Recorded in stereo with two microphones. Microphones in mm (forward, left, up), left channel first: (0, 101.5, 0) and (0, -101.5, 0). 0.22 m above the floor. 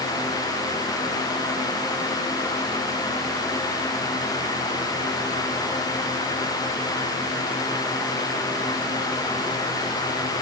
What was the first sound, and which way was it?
Only background noise.